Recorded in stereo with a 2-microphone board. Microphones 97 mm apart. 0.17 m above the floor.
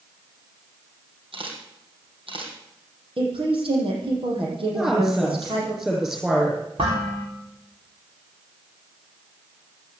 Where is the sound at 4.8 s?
10° right (ahead or behind), 7.5 m.